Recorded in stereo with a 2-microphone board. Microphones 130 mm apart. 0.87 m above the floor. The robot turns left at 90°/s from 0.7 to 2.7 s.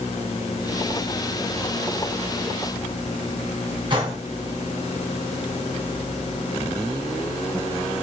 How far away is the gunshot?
About 1.7 m.